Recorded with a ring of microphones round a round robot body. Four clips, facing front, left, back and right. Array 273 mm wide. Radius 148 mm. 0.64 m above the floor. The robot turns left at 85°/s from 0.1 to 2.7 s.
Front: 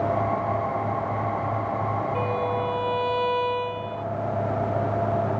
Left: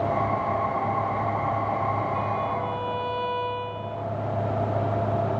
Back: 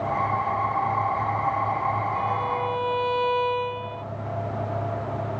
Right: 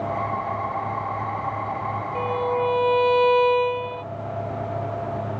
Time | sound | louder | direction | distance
2.1 | a violin | right 3 dB, even | 40° right | ?